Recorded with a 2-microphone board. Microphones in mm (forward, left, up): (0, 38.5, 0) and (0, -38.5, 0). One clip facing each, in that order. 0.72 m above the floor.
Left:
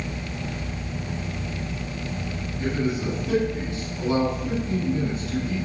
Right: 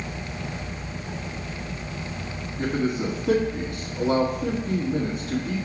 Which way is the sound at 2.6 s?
45° right (ahead or behind).